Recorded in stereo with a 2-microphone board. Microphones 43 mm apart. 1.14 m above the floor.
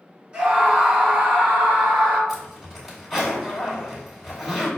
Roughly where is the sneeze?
I don't hear a sneeze.